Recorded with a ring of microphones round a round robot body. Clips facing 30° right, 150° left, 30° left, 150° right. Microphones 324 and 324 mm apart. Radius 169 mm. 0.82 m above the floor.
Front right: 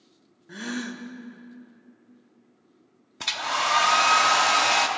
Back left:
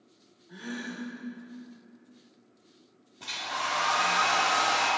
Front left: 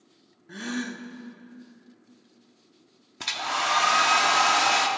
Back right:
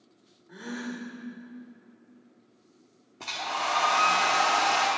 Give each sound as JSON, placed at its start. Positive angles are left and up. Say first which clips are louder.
{"t": 0.5, "sound": "a gasp", "louder": "front right 5 dB, front left 4 dB", "azimuth_deg": -10, "distance_m": 0.7}
{"t": 3.2, "sound": "a hair dryer", "louder": "front right 6 dB, front left 1 dB", "azimuth_deg": -25, "distance_m": 1.0}